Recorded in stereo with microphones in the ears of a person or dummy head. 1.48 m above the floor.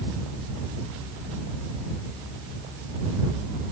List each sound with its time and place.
Only background noise.